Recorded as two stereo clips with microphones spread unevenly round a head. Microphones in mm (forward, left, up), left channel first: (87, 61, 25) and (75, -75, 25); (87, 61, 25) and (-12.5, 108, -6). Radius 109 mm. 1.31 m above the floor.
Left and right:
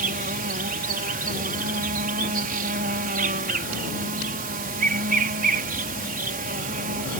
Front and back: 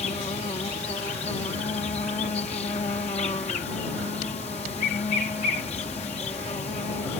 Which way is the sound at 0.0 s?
90° right.